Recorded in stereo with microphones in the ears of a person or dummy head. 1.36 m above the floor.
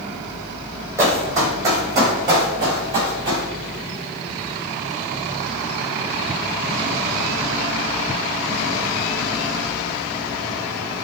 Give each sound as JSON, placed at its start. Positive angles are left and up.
{"t": 1.0, "sound": "running footsteps", "side_deg": -20, "distance_m": 2.0}